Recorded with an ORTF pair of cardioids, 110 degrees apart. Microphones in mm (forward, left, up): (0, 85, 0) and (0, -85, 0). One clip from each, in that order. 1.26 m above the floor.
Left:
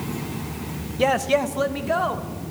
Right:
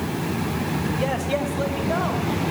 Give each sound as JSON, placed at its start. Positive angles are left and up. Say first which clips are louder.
{"t": 1.0, "sound": "a man speaking", "louder": "left 7 dB", "azimuth_deg": 35, "distance_m": 1.0}